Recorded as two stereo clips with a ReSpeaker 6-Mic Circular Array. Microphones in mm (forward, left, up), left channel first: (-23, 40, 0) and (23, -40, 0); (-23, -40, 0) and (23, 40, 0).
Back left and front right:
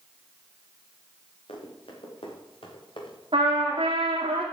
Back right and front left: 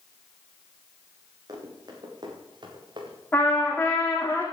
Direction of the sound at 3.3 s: 50° right.